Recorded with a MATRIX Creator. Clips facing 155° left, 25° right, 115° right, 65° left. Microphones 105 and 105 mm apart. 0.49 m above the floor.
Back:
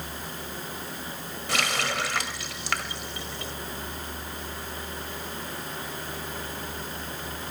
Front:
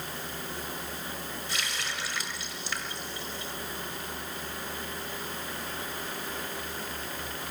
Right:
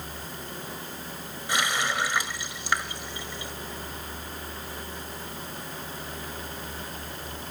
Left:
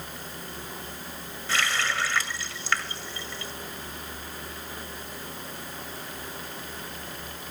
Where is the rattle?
I don't hear a rattle.